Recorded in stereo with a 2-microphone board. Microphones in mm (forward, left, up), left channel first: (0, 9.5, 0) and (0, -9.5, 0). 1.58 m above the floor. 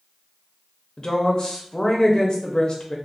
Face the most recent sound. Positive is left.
turn(degrees=50)  # may be behind; listen again after turning